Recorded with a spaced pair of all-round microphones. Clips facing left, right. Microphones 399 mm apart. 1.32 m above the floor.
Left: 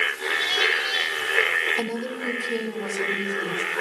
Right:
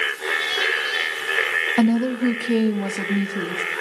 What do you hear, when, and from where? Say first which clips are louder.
1.8 s a woman speaking: right 13 dB; 80° right, 1.5 m; by 3.6 s 90° right, 2.5 m